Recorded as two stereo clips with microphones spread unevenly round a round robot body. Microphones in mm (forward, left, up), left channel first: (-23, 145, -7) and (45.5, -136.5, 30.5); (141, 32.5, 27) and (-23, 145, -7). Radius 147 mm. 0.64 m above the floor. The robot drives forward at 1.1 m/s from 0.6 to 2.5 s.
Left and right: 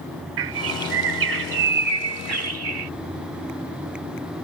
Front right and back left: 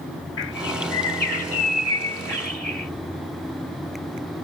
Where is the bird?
85° right; by 2.9 s 120° right.